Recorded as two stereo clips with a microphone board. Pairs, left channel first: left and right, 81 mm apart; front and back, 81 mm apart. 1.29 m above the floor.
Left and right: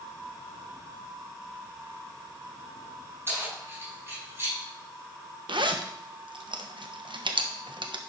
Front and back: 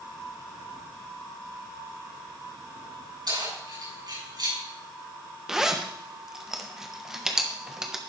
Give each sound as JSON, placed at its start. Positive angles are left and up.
{"t": 3.3, "sound": "keys jangling", "azimuth_deg": -150, "distance_m": 6.0}
{"t": 5.5, "sound": "a zipper", "azimuth_deg": -95, "distance_m": 0.9}